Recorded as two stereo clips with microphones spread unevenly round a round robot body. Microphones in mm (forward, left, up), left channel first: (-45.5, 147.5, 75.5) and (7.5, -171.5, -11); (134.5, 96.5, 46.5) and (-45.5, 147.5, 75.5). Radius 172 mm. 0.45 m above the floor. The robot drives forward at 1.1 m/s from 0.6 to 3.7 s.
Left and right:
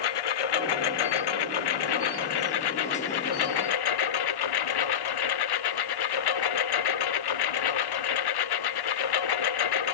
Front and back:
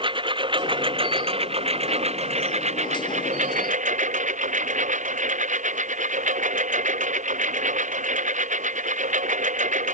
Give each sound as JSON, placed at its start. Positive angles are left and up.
{"t": 0.0, "sound": "a lawn mower", "azimuth_deg": 100}